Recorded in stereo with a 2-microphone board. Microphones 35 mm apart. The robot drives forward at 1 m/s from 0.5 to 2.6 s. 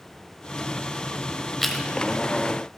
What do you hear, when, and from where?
1.6 s chewing: 5° left (ahead or behind), 0.9 m